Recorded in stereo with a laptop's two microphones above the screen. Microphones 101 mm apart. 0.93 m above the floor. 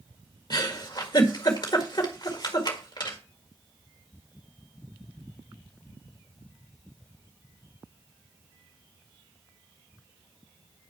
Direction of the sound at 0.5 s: 45° left (ahead or behind).